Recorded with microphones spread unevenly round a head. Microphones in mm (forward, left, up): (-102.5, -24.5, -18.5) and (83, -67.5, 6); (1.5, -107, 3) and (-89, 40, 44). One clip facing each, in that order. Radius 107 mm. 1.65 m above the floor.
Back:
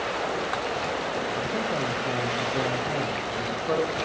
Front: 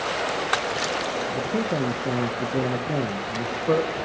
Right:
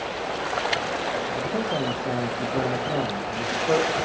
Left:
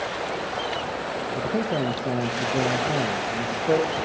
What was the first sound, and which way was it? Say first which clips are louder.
A man speaking: front 3 dB, left 4 dB; 45° left.